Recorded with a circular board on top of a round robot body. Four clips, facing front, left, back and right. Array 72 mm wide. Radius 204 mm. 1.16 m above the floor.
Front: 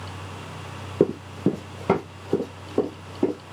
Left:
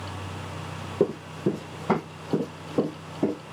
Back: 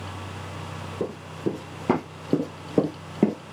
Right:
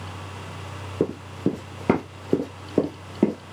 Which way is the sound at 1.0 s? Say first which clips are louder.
Even, front 8 dB; 5° right.